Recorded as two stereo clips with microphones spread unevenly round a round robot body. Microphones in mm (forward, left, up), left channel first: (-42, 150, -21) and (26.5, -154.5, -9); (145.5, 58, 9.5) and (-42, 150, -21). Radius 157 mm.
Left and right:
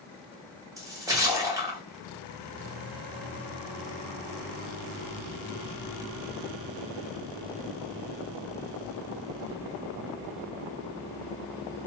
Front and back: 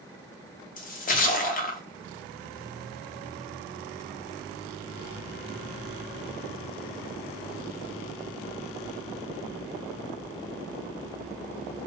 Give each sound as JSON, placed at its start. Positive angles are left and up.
{"t": 0.8, "sound": "a splash", "azimuth_deg": 0, "distance_m": 0.6}